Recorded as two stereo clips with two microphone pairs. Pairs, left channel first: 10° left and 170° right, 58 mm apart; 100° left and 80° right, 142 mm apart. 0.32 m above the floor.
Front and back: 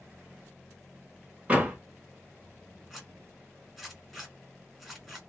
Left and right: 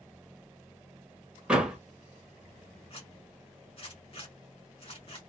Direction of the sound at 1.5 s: 160° right.